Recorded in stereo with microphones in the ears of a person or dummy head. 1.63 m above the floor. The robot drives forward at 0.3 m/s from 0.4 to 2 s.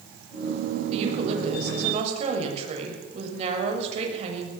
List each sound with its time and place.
0.9 s a woman speaking: 35° right (ahead or behind), 7.5 m